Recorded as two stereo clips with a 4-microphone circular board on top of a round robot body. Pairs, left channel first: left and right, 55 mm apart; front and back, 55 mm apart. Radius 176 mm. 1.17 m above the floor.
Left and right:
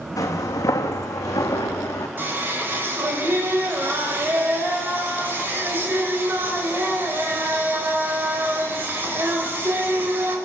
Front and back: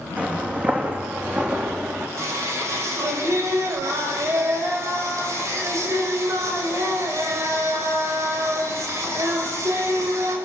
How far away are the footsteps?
About 3 m.